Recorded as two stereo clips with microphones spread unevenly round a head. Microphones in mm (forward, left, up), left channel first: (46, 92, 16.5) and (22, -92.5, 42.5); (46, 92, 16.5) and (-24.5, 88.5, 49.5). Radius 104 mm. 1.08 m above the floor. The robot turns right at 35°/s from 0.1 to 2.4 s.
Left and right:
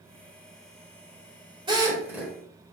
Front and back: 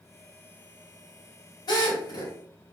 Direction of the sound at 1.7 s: 35° right.